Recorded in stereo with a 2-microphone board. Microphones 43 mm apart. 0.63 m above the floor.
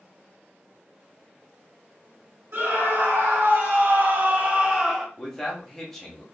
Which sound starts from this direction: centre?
A man speaking, at 5.2 s.